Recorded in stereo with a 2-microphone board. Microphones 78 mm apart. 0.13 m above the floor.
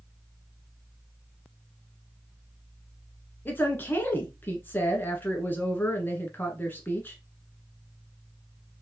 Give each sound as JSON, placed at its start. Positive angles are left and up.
{"t": 3.5, "sound": "a woman speaking", "side_deg": 25, "distance_m": 1.2}